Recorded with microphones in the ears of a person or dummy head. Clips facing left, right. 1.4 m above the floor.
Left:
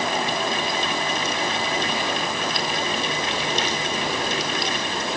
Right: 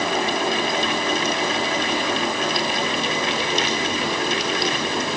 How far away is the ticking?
No ticking in this recording.